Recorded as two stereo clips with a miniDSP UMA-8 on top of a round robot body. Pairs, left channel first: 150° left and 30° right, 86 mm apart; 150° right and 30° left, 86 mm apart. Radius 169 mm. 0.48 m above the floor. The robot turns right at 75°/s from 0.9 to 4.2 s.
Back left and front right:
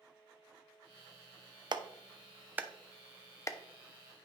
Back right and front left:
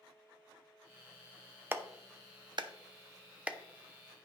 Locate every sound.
1.7 s a clap: 30° right, 0.7 m; by 3.6 s 110° left, 0.7 m